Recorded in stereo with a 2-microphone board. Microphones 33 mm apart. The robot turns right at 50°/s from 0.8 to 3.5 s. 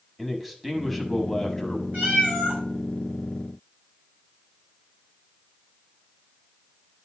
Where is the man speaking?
5° right (ahead or behind), 1.0 m; by 1.8 s 10° left (ahead or behind), 1.0 m.